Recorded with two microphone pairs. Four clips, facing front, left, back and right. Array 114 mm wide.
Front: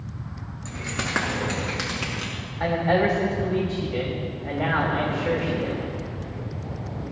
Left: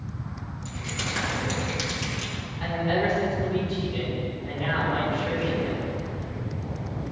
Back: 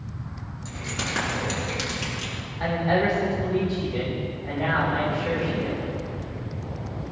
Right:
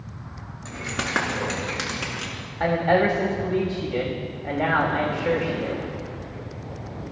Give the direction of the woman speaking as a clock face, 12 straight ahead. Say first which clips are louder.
Right 6 dB, front 2 dB; 2 o'clock.